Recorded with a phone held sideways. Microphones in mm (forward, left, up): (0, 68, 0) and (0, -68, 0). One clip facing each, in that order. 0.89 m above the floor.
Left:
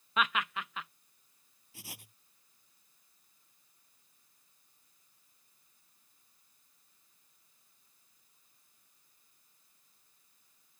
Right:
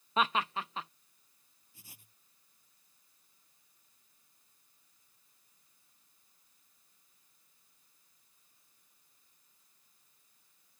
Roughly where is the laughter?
Right.